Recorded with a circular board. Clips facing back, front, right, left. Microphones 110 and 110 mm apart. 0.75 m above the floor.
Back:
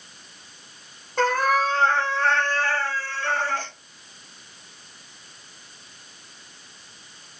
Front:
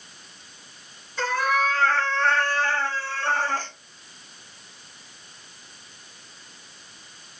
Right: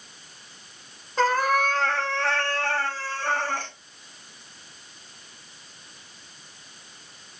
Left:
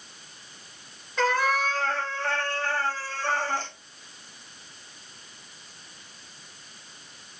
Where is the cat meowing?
145° right, 0.8 m; by 3.7 s 50° right, 1.5 m.